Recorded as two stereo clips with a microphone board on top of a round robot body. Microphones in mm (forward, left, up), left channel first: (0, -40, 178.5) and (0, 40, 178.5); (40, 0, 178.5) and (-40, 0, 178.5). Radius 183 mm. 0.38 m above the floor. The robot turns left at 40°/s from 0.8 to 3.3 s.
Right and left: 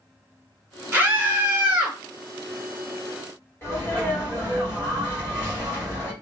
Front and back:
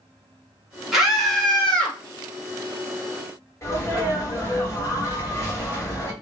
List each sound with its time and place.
0.9 s a scream: 95° left, 1.5 m; by 2.0 s 55° left, 1.5 m
3.6 s a sneeze: 40° right, 1.8 m